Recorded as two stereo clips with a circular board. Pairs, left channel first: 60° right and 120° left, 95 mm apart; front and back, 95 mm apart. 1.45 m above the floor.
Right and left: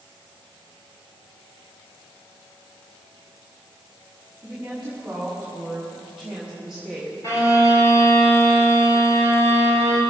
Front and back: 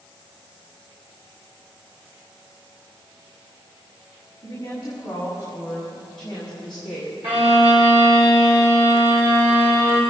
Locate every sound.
4.4 s a woman speaking: 45° left, 5 m; by 7.2 s 25° left, 3 m
7.2 s a violin: 5° right, 4.5 m